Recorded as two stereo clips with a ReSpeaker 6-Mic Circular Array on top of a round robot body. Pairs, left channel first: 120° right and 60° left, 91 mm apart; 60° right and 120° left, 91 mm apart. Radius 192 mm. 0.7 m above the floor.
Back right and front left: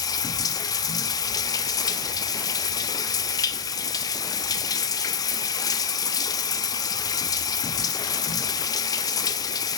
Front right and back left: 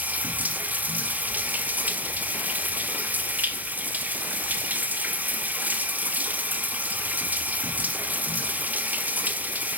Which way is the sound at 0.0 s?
165° right.